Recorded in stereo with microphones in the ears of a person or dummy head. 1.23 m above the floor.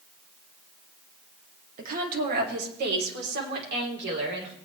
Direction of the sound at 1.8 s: 50° right (ahead or behind).